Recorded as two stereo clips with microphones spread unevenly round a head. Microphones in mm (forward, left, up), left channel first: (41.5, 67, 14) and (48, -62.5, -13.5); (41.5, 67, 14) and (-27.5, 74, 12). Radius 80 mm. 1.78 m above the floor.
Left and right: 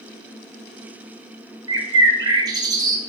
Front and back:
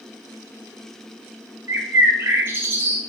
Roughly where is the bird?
Behind right.